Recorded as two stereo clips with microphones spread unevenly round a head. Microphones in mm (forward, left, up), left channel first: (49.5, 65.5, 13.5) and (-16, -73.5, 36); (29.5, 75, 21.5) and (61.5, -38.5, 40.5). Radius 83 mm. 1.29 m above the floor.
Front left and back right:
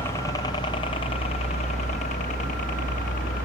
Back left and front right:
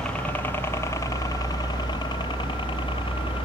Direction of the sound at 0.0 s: 55° left.